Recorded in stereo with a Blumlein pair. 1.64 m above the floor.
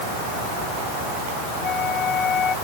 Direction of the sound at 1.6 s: 25° left.